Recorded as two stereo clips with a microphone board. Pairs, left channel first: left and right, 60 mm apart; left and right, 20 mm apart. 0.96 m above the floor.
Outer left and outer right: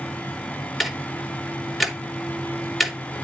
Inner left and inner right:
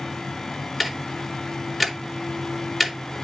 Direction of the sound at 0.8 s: Centre (ahead or behind).